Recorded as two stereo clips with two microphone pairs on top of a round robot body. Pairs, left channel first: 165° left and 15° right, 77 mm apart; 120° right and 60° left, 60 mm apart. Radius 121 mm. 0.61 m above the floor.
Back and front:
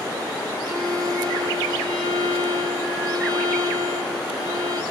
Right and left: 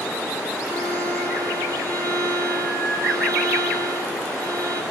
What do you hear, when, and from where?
0.6 s a violin: 30° left, 3 m